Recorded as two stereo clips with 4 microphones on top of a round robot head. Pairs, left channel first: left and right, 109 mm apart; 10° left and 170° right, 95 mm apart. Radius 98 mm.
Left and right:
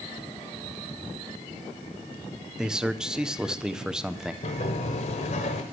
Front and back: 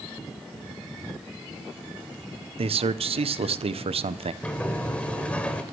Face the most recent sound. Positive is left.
turn(degrees=85)